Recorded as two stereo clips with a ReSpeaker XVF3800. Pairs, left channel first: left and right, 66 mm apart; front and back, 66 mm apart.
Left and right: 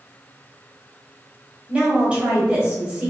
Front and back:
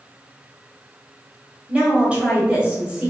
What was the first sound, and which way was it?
A woman speaking, 135° right.